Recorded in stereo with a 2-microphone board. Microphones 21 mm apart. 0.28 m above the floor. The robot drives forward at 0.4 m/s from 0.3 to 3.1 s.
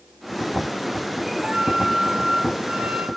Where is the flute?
70° right (ahead or behind), 3 m; by 3.1 s 80° right, 2.5 m.